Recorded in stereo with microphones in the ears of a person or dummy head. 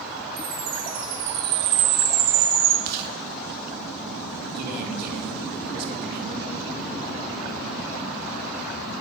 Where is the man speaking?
60° right (ahead or behind), 3.5 m.